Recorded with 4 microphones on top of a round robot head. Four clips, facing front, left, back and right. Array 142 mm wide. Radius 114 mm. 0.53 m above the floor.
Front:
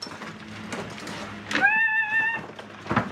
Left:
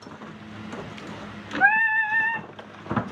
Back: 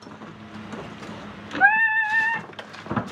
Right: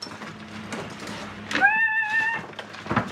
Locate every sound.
1.6 s singing: 160° left, 1.0 m